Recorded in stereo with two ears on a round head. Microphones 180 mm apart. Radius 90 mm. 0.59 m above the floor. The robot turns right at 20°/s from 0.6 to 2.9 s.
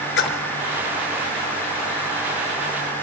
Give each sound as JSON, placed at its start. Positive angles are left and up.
{"t": 0.2, "sound": "a splash", "side_deg": 65, "distance_m": 1.8}